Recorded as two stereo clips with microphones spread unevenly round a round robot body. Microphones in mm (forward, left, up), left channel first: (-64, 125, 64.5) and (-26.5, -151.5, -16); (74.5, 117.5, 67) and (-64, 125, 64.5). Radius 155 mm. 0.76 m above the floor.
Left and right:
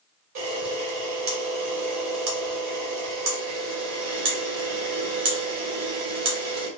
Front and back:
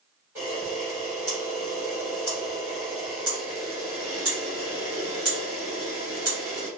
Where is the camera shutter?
105° right, 1.6 m.